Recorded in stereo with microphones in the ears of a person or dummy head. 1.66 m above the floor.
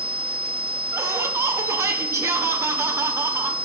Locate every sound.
0.9 s laughter: 10° right (ahead or behind), 1.1 m